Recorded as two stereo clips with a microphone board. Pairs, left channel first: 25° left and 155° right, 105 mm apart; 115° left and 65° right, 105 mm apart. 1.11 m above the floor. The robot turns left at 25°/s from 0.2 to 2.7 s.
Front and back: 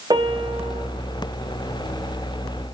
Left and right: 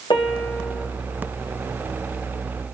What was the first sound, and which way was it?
A piano, 155° left.